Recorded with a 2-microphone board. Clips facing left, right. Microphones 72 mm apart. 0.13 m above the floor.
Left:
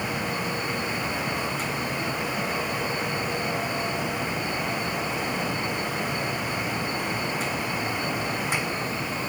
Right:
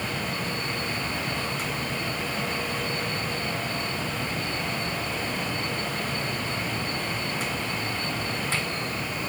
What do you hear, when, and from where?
Only background noise.